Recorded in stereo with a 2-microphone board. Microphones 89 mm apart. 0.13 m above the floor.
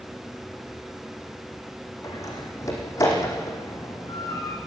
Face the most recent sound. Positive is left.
turn(degrees=40)  # may be behind; listen again after turning